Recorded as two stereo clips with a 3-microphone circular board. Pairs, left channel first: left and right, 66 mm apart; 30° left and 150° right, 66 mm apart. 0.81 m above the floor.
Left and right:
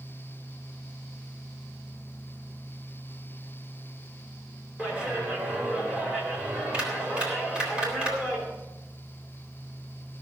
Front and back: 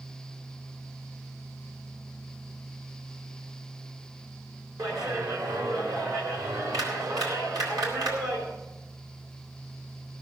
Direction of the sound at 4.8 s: 165° right.